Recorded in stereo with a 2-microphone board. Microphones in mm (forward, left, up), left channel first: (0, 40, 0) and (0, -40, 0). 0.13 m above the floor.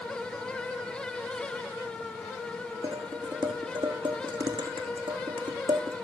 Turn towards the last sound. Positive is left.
turn(degrees=-80)